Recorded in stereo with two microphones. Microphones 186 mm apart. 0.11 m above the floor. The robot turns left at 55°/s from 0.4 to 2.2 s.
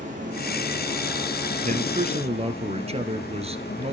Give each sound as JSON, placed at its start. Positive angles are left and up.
{"t": 0.0, "sound": "running water", "azimuth_deg": -135, "distance_m": 5.5}
{"t": 1.6, "sound": "a man speaking", "azimuth_deg": -95, "distance_m": 1.6}